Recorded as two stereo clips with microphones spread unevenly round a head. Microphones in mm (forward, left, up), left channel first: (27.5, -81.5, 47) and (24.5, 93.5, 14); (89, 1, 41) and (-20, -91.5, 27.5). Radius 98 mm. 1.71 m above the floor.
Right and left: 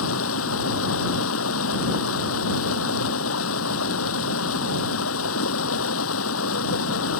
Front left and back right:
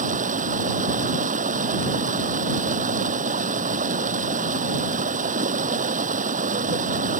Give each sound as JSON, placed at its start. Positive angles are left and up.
{"t": 0.0, "sound": "running water", "azimuth_deg": -110}